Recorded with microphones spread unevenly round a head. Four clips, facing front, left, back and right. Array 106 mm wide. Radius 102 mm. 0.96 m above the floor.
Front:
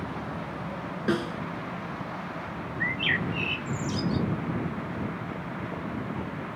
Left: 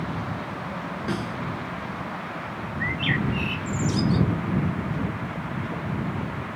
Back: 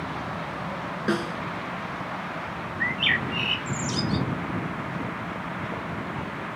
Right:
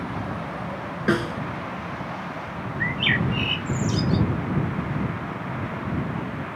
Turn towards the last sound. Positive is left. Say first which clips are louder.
# right 1 dB, back 2 dB
turn(degrees=-10)